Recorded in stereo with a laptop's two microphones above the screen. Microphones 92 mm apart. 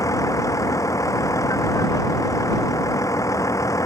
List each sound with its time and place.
0.0 s a vehicle: 35° left (ahead or behind)